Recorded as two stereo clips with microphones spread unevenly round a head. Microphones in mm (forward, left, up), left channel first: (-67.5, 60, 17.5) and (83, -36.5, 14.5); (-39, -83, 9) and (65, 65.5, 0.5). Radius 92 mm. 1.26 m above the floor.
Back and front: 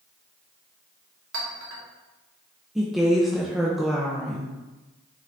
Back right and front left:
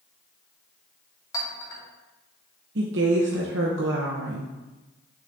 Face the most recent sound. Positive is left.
turn(degrees=55)